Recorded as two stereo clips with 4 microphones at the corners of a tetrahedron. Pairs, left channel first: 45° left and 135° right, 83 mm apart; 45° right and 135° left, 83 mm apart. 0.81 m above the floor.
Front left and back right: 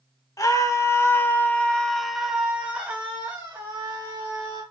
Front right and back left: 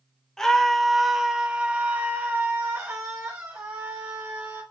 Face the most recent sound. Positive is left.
turn(degrees=180)